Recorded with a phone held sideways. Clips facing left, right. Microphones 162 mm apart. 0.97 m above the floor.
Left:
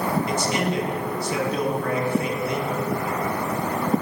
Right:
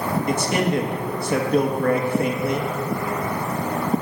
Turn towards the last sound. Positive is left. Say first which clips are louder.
# right 3 dB
turn(degrees=-55)  # may be behind; listen again after turning